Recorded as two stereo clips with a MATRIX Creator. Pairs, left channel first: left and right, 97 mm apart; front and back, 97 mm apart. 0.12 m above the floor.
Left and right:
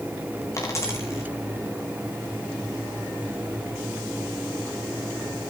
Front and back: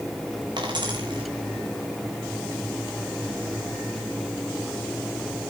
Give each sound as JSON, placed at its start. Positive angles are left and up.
{"t": 0.6, "sound": "a dropped coin", "azimuth_deg": 145, "distance_m": 2.5}